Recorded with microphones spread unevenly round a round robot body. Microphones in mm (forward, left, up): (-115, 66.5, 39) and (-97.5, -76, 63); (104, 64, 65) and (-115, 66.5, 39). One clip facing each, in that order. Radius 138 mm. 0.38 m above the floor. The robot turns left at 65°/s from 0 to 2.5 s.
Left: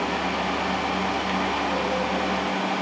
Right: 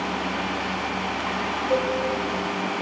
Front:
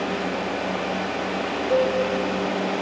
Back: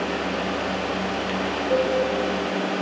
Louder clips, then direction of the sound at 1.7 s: Right 4 dB, front 2 dB; 105° right.